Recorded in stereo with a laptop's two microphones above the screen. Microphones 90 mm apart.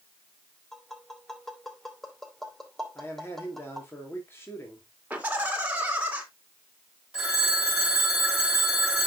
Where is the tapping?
Centre (ahead or behind), 2.5 m.